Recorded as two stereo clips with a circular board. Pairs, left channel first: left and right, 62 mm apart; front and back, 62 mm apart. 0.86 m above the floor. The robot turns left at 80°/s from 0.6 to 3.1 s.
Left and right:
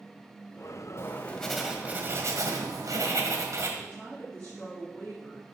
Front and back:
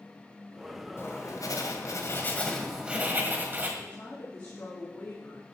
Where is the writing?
45° left, 1.8 m; by 3.7 s 125° right, 1.8 m.